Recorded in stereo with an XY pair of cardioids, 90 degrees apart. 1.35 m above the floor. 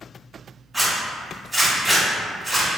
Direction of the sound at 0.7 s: 15° right.